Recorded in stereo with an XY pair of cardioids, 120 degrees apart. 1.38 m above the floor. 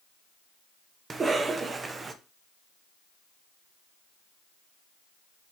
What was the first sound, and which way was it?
A cough, 30° right.